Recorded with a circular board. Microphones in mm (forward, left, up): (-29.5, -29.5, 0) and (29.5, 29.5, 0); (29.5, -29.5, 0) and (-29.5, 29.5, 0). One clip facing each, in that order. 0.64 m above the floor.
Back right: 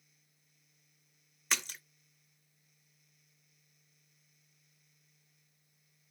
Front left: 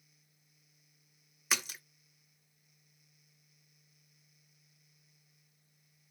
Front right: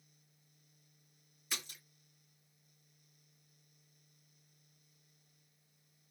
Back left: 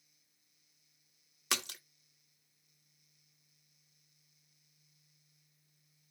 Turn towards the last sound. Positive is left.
turn(degrees=130)